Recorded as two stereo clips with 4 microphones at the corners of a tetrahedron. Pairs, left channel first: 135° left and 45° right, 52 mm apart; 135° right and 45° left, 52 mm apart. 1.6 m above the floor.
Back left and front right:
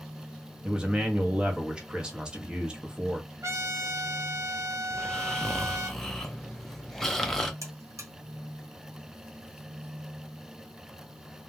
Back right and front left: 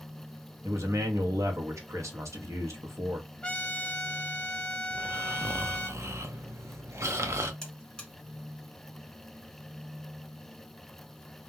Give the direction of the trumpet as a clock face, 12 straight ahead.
2 o'clock.